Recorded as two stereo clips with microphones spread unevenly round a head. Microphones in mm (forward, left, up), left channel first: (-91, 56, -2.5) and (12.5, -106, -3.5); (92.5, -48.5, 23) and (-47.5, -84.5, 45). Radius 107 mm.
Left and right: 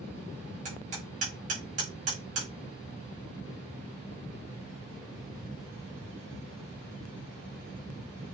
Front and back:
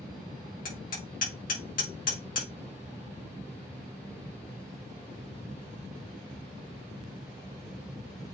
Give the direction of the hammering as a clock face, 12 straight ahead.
12 o'clock.